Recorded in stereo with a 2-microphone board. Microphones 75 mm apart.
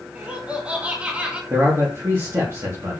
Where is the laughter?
15° right (ahead or behind), 2.5 m.